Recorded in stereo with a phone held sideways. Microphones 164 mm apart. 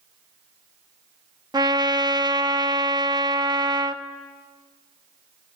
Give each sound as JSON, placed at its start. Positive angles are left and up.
{"t": 1.5, "sound": "a trumpet", "side_deg": -25, "distance_m": 0.9}